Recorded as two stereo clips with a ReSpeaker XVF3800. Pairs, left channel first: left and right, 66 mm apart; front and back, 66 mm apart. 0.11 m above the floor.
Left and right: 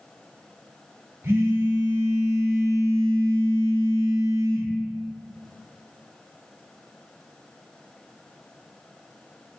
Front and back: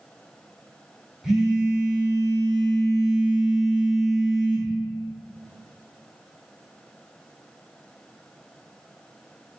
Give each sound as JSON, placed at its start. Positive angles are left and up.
{"t": 1.2, "sound": "a phone buzzing", "azimuth_deg": -100, "distance_m": 0.8}